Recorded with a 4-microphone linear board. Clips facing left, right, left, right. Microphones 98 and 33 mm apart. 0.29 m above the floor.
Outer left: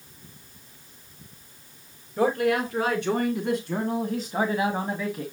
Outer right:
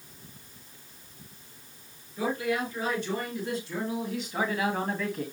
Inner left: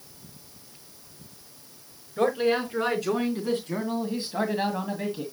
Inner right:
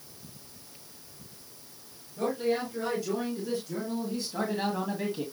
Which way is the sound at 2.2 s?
75° left (ahead or behind).